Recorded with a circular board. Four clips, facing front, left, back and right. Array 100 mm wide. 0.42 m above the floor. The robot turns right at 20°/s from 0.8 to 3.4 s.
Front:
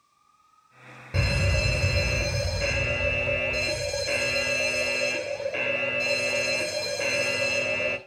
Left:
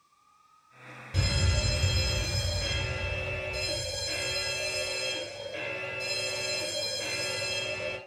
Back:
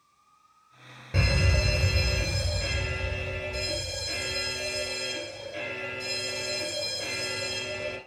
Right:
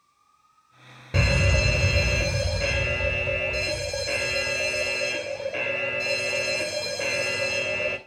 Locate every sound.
1.1 s a fire alarm: 90° right, 2.5 m; by 8.0 s 45° right, 2.5 m